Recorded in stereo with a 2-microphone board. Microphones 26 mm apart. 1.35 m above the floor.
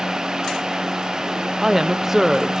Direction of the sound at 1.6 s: 15° right (ahead or behind).